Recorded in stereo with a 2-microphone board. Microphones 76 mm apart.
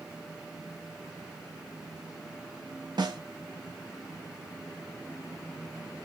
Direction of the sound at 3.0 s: 65° right (ahead or behind).